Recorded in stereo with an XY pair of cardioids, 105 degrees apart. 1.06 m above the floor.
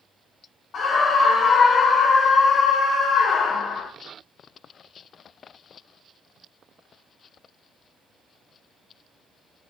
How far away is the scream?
About 1.8 m.